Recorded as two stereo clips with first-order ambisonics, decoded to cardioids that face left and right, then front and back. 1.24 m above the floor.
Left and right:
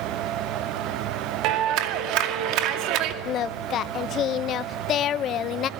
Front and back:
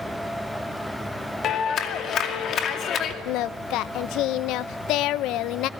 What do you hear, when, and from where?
1.4 s a clap: 55° right, 2 m
3.2 s singing: 35° left, 0.6 m